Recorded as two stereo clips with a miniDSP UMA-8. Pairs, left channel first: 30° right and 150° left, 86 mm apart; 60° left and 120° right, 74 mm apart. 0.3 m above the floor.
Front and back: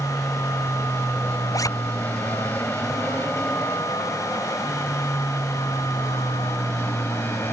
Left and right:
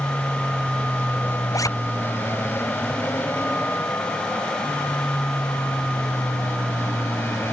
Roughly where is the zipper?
Ahead.